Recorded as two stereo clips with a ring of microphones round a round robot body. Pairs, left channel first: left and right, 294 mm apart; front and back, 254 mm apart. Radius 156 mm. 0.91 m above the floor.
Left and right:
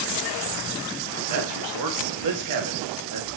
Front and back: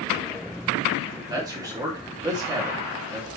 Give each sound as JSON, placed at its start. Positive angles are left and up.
{"t": 1.3, "sound": "a man speaking", "azimuth_deg": -105, "distance_m": 1.7}